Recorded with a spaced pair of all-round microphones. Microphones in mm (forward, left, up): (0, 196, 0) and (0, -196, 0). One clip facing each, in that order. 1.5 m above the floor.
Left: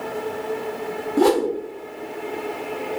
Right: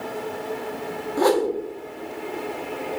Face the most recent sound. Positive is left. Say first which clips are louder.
# left 2 dB
turn(degrees=45)  # may be behind; listen again after turning